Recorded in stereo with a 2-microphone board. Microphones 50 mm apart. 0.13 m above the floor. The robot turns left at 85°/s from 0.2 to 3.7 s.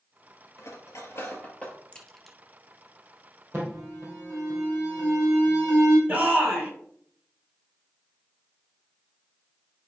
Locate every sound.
0.6 s cutlery clinking: 55° left (ahead or behind), 1.6 m; by 1.8 s 10° left (ahead or behind), 1.6 m
1.9 s a crack: 25° left (ahead or behind), 1.1 m; by 2.4 s 10° right (ahead or behind), 1.1 m
3.5 s an alarm: 40° right (ahead or behind), 3 m; by 6.0 s 55° right (ahead or behind), 3 m
6.1 s a shout: 40° right (ahead or behind), 2.5 m